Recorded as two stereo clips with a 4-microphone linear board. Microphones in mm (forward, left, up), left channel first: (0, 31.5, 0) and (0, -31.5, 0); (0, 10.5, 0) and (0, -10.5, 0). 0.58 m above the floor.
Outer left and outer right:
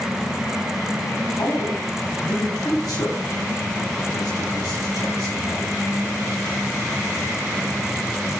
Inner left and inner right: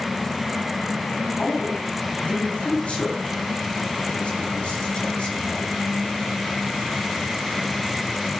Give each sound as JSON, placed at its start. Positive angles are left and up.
{"t": 1.4, "sound": "a man speaking", "side_deg": 80, "distance_m": 4.0}